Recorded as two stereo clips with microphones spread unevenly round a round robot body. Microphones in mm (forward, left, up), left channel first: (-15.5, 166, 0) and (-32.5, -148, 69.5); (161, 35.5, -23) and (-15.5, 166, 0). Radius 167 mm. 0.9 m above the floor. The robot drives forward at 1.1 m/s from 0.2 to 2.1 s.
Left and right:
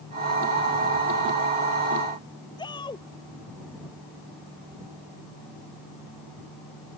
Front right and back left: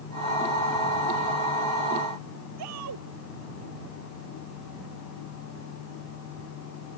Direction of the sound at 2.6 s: 165° left.